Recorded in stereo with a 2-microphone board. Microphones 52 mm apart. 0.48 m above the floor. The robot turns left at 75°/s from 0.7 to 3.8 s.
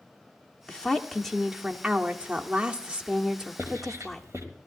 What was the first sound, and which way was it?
A woman speaking, 20° left (ahead or behind).